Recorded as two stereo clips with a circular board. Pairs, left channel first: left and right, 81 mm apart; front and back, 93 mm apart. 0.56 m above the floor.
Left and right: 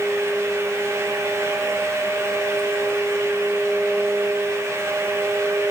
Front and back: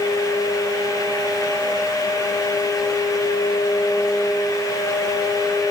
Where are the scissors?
I don't hear scissors.